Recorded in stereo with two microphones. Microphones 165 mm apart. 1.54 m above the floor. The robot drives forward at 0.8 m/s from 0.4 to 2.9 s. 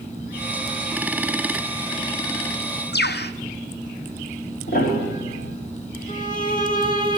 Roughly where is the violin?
Left.